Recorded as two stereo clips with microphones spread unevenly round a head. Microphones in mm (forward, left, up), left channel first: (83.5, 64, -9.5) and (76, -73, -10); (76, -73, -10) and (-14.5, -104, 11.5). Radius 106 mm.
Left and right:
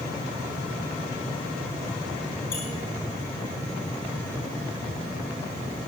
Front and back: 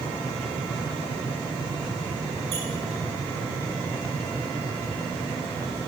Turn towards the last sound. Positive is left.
turn(degrees=155)